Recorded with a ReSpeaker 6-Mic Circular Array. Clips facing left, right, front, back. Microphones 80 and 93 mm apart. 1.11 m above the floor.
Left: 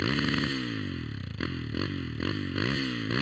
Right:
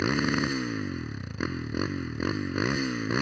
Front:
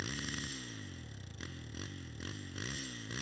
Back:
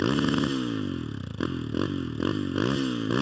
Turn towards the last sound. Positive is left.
turn(degrees=-160)